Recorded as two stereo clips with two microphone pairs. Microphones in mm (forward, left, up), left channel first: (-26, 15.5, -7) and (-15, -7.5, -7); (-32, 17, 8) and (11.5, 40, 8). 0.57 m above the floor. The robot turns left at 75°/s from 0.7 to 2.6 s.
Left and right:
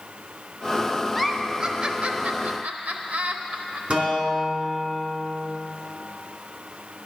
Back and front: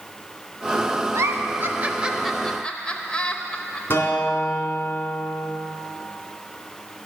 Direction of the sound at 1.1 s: 25° left.